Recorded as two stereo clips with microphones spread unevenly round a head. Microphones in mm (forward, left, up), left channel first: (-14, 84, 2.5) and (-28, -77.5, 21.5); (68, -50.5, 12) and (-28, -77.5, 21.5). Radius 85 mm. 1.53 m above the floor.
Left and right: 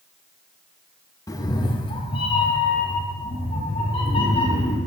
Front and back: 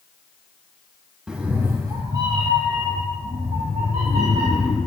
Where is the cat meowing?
140° left, 0.8 m; by 4.8 s 145° left, 3.5 m.